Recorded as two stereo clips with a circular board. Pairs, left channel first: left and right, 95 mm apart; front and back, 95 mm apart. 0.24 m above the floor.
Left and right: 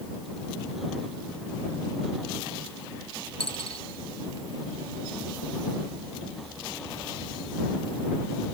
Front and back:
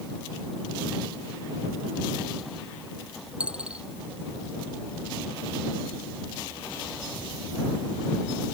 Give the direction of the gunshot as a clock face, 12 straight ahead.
No gunshot in this recording.